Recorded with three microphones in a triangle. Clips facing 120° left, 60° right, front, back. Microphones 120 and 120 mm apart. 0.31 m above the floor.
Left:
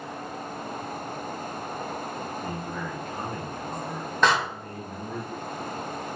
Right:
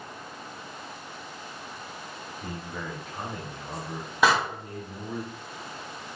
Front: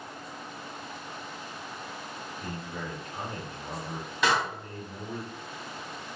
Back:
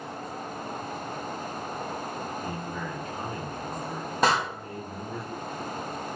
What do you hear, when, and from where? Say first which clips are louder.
2.4 s a man speaking: left 4 dB, back 4 dB; 15° left, 1.2 m
4.2 s a door slam: even, back 3 dB; 140° right, 1.5 m